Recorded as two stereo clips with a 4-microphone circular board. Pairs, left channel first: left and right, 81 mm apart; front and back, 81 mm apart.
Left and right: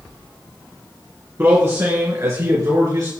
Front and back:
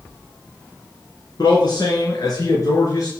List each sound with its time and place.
1.4 s a man speaking: 30° right, 3.5 m; by 3.1 s 50° right, 4 m